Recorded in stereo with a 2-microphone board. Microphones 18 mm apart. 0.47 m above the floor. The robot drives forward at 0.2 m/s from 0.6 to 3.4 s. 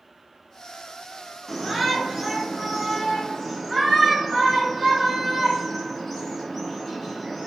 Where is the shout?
Centre (ahead or behind), 1.1 m.